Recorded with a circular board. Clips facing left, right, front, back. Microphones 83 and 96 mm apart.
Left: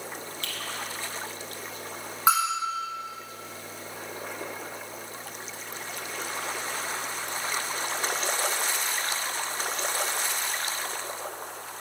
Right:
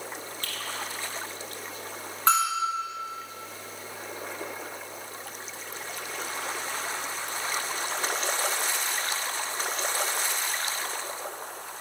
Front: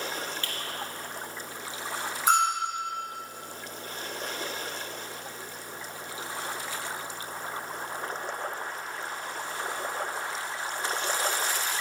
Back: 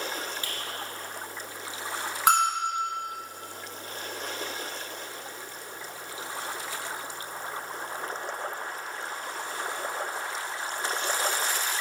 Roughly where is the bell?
Behind.